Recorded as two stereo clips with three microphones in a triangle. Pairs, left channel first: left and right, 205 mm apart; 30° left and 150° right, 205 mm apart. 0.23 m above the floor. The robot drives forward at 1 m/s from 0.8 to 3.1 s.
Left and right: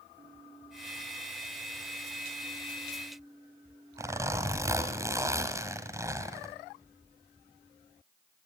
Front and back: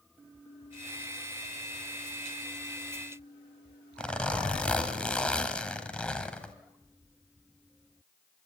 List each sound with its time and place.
4.0 s a zipper: 45° right, 1.5 m